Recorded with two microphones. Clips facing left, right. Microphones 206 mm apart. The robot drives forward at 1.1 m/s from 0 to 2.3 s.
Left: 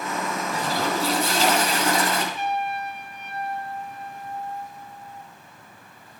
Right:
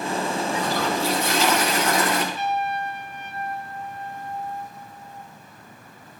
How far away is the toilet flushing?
About 9.5 m.